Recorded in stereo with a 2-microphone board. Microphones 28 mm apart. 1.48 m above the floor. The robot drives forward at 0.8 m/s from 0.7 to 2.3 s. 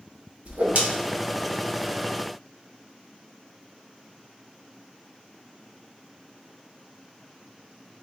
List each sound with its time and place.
0.5 s a whoosh: 60° right (ahead or behind), 1.2 m